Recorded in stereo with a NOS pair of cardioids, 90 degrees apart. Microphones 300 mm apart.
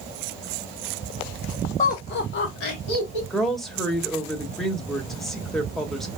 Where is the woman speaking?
Straight ahead, 1.1 m.